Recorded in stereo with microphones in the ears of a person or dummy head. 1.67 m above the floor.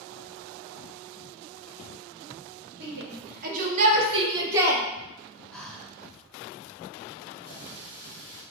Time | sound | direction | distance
2.8 | a shout | 65° right (ahead or behind) | 1.5 m
5.5 | breathing | centre (ahead or behind) | 1.9 m
7.5 | a running tap | 15° right (ahead or behind) | 2 m